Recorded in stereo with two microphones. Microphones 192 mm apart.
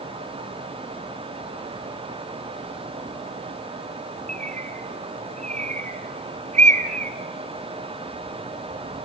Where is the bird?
40° right (ahead or behind), 1.4 m.